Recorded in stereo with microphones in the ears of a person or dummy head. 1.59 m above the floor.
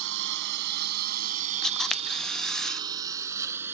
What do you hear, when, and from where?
0.0 s a lawn mower: 65° right (ahead or behind); by 3.7 s 10° right (ahead or behind)
1.6 s a camera shutter: 5° left (ahead or behind)